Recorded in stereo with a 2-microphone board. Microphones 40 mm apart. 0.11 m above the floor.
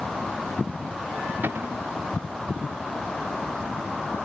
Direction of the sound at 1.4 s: 60° right (ahead or behind).